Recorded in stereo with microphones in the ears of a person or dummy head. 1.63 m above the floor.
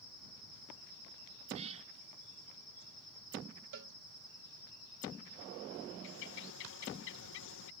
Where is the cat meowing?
35° right (ahead or behind).